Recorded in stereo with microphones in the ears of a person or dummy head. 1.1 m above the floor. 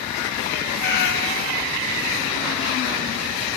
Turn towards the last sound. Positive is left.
turn(degrees=60)  # may be behind; listen again after turning